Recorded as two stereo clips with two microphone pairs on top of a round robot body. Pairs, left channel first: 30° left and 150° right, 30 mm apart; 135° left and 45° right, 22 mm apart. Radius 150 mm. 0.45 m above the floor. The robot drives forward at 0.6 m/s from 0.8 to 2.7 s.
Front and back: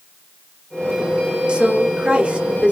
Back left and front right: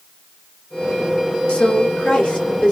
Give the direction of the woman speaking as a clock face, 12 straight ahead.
7 o'clock.